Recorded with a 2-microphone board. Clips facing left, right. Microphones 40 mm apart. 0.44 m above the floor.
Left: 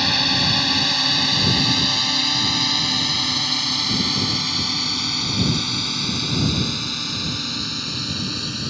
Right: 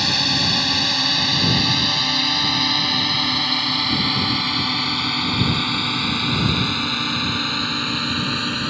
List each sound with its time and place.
0.0 s a drone: 5° left (ahead or behind); by 8.7 s 35° right (ahead or behind)